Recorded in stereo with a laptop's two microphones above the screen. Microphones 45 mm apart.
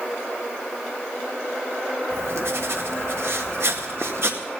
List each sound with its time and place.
2.1 s writing: 70° right (ahead or behind), 1.8 m